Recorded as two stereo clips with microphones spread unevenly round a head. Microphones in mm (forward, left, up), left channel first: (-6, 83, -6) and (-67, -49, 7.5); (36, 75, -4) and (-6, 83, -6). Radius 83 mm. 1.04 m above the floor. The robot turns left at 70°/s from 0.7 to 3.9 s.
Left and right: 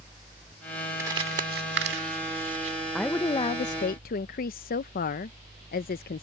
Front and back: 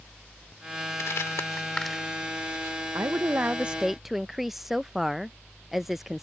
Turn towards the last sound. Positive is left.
turn(degrees=85)